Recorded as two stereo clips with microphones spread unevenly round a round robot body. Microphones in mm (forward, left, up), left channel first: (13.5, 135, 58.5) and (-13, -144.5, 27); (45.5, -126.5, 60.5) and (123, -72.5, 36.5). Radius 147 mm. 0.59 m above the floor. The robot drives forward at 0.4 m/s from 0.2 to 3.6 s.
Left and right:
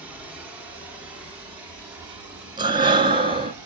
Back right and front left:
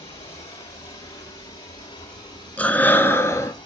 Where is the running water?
175° right, 1.7 m; by 3.7 s straight behind, 3 m.